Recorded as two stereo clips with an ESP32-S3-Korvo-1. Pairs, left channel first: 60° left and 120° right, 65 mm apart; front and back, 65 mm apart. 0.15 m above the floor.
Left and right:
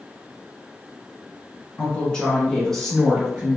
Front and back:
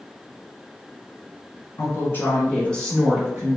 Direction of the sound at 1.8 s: 10° right.